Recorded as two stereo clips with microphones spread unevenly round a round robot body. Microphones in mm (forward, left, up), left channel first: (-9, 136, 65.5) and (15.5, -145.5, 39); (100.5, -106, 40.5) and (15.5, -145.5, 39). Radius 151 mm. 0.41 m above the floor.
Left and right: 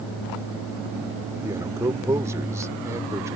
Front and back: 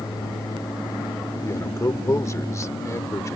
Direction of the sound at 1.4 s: 15° right.